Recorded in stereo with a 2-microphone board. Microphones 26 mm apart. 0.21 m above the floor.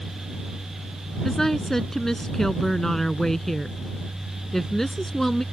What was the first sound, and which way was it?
A woman speaking, 15° left (ahead or behind).